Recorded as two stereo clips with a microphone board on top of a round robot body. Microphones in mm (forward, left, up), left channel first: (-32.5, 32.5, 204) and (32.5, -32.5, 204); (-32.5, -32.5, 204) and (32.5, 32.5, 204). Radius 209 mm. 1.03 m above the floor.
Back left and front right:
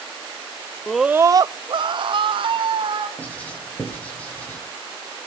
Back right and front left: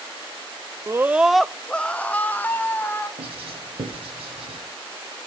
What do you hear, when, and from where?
0.9 s a scream: 65° left, 0.7 m; by 3.1 s 65° right, 2.5 m
3.2 s writing: 60° left, 4.5 m